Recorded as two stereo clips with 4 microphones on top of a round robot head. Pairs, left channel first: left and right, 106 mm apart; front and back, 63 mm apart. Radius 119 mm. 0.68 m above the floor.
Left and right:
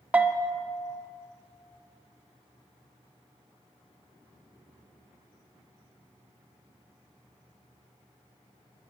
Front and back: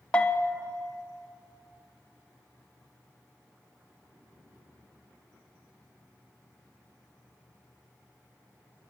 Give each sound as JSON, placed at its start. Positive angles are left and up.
{"t": 0.1, "sound": "a bell", "azimuth_deg": -40, "distance_m": 0.6}